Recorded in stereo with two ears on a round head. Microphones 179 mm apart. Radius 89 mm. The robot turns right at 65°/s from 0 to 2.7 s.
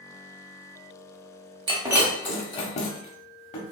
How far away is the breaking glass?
About 0.7 m.